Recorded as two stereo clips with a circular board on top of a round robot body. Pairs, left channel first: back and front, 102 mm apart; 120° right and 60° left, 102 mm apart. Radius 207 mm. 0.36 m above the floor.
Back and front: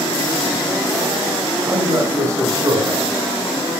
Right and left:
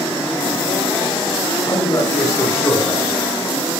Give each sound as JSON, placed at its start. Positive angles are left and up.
{"t": 1.6, "sound": "a man speaking", "azimuth_deg": -65, "distance_m": 6.0}